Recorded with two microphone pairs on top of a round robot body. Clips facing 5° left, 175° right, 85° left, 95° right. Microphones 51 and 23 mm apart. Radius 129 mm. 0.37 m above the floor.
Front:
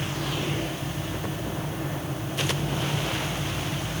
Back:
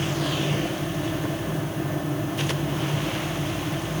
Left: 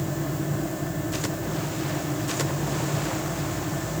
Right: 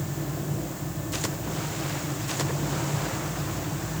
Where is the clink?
No clink in this recording.